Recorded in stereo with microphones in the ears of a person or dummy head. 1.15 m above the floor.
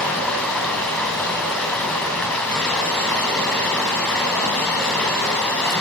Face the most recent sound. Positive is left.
turn(degrees=5)  # may be behind; listen again after turning